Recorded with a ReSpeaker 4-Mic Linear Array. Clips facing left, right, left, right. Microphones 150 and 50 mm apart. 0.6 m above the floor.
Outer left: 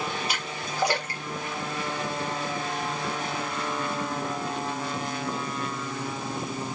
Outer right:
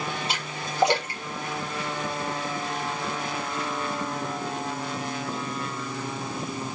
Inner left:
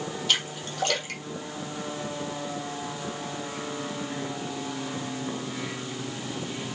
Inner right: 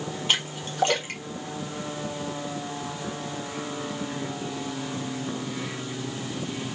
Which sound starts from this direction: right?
A splash, at 0.3 s.